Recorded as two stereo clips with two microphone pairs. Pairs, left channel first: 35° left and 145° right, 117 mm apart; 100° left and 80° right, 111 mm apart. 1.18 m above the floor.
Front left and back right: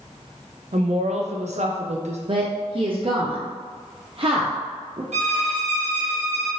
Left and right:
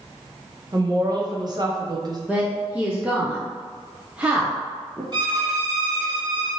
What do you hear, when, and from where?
0.7 s a woman speaking: 130° right, 0.6 m
2.3 s a woman speaking: 160° right, 0.5 m
5.1 s a violin: 130° right, 1.1 m